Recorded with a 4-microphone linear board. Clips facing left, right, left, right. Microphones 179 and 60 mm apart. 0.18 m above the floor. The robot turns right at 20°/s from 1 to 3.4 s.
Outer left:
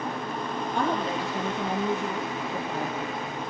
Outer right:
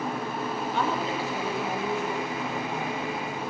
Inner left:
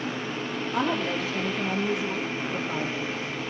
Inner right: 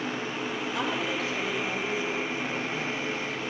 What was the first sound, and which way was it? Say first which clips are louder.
A woman speaking: outer left 3 dB, inner left 5 dB; 55° left.